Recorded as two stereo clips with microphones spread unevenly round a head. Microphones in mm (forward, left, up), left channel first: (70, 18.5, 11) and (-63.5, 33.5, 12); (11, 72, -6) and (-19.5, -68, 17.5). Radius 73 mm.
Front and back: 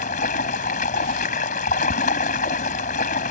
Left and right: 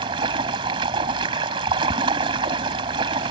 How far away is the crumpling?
I don't hear crumpling.